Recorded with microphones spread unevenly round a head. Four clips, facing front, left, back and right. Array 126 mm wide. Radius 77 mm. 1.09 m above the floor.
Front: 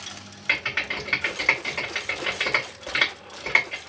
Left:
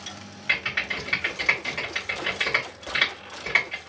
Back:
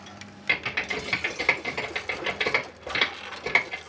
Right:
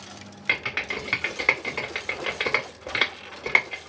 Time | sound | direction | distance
0.5 | typing on a keyboard | 85° right | 3 m